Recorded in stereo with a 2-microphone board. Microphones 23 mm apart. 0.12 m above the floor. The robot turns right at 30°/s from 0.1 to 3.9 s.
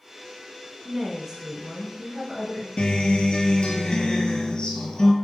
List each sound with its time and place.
0.8 s a woman speaking: 20° right (ahead or behind), 1.1 m; by 2.7 s centre (ahead or behind), 1.1 m
2.8 s a guitar: 105° left, 0.5 m; by 5.1 s 135° left, 0.5 m